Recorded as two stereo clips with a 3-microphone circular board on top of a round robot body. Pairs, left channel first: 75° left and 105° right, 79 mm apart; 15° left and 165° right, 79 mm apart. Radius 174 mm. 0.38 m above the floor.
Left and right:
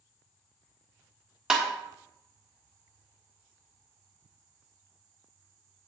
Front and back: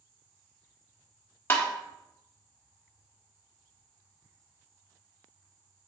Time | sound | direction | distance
1.5 | tapping | 30° right | 1.5 m